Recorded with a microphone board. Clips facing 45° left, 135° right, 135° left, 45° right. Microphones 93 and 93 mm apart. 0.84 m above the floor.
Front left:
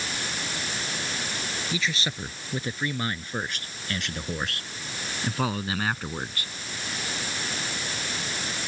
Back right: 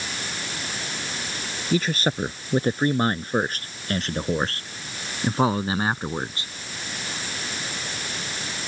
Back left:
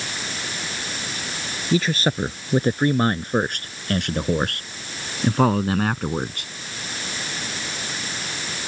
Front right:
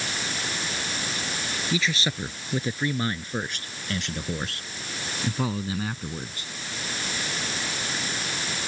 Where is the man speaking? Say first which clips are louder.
Back right 9 dB, back left 8 dB; straight behind; by 6.5 s 155° left.